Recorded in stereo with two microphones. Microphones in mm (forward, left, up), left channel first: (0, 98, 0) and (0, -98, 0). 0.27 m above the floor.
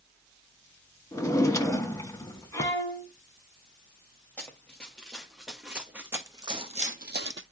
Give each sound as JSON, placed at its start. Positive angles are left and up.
{"t": 1.1, "sound": "a drawer", "side_deg": 15, "distance_m": 0.7}
{"t": 2.5, "sound": "a violin", "side_deg": 15, "distance_m": 2.5}
{"t": 4.4, "sound": "running footsteps", "side_deg": 5, "distance_m": 2.5}